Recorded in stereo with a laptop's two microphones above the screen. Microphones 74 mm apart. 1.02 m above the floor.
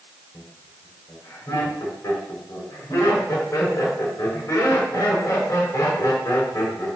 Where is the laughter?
50° left (ahead or behind), 5 m.